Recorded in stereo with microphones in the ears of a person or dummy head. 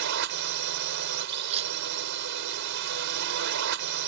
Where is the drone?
65° right (ahead or behind).